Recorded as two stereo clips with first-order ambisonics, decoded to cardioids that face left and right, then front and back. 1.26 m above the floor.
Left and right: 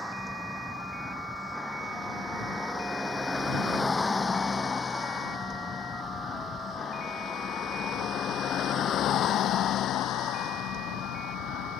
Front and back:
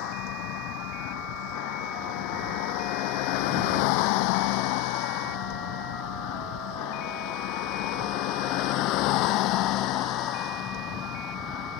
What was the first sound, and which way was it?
A vehicle, 5° right.